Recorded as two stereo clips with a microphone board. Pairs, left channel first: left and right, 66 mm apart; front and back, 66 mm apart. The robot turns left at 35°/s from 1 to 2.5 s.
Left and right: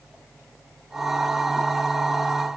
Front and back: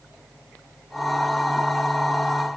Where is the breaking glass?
I don't hear breaking glass.